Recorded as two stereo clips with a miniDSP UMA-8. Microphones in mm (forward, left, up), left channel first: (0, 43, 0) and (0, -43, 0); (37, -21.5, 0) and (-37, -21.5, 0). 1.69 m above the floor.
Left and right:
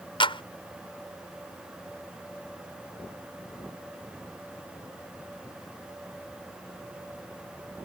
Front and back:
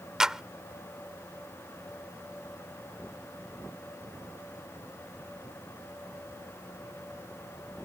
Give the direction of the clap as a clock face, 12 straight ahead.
9 o'clock.